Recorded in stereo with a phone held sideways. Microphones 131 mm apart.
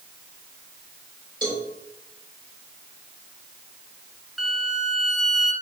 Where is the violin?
Centre (ahead or behind), 1.2 m.